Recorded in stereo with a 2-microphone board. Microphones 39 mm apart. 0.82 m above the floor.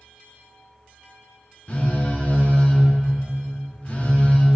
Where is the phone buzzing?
35° left (ahead or behind), 0.7 m.